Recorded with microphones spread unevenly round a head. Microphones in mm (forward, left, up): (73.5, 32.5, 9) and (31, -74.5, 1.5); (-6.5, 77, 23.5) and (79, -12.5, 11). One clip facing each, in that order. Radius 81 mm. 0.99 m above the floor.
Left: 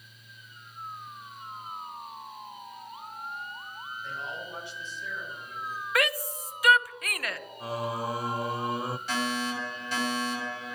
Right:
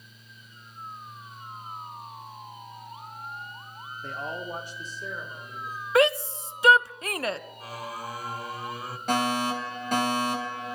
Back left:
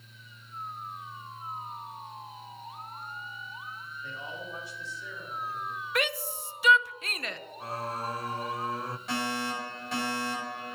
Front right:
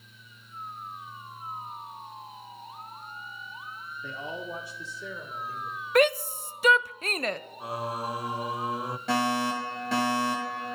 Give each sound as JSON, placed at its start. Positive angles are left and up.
{"t": 4.0, "sound": "a man speaking", "azimuth_deg": -75, "distance_m": 2.5}
{"t": 6.0, "sound": "a shout", "azimuth_deg": -60, "distance_m": 0.6}
{"t": 7.6, "sound": "singing", "azimuth_deg": 15, "distance_m": 0.5}
{"t": 9.1, "sound": "a fire alarm", "azimuth_deg": -75, "distance_m": 8.0}